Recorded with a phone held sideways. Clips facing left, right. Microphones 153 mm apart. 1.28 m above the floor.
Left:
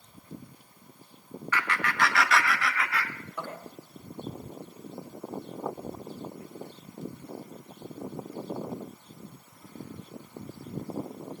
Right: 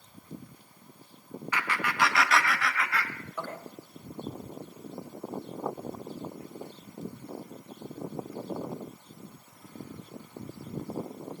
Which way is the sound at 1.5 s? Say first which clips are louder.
Left 1 dB; 15° right (ahead or behind).